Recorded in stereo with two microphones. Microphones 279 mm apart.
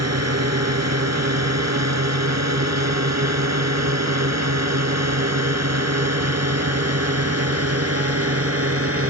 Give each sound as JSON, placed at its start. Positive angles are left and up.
{"t": 0.0, "sound": "a drone", "side_deg": -65}